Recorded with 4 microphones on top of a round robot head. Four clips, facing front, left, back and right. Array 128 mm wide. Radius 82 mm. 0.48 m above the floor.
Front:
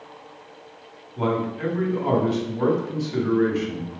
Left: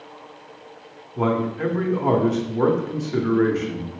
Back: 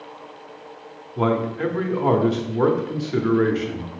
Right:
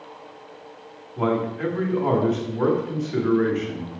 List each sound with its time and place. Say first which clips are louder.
1.2 s a man speaking: left 1 dB, back 3 dB; 160° left, 0.8 m